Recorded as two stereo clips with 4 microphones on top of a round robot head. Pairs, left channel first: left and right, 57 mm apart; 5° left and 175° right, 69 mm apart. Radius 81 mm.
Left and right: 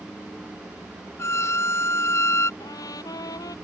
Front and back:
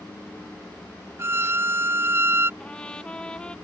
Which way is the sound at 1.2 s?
130° left.